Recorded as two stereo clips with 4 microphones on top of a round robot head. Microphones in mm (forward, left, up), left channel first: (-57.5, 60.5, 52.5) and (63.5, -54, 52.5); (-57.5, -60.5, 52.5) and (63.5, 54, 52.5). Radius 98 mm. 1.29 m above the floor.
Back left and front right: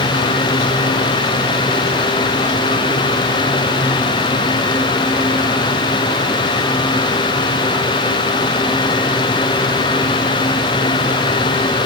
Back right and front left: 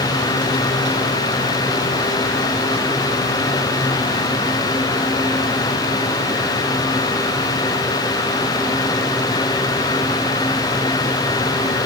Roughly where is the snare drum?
No snare drum in this recording.